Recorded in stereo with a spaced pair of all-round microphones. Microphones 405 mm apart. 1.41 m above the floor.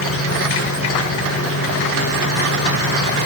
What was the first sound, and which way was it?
An insect, 35° left (ahead or behind).